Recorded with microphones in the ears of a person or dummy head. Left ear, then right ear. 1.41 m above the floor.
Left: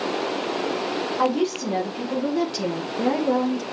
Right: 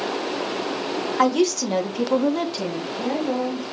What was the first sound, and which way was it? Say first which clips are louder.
A woman speaking: right 4 dB; 90° right.